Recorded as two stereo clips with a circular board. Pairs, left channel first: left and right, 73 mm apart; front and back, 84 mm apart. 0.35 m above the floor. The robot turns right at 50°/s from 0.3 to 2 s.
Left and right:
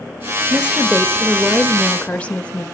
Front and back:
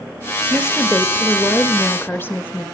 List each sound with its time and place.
0.5 s a woman speaking: 40° right, 1.4 m; by 2.6 s 35° left, 1.4 m